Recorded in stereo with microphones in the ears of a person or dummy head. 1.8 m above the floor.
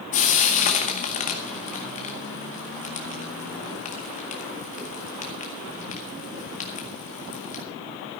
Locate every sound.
0.1 s frying: 35° left (ahead or behind), 1.7 m